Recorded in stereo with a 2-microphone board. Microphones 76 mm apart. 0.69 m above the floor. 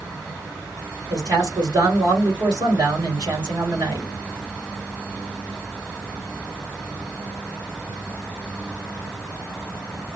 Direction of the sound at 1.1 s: 65° right (ahead or behind).